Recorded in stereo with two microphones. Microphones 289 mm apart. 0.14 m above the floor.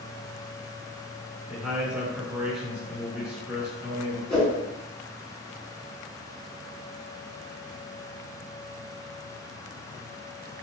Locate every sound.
1.5 s a man speaking: 5° right (ahead or behind), 1.6 m
4.3 s a whoosh: centre (ahead or behind), 1.6 m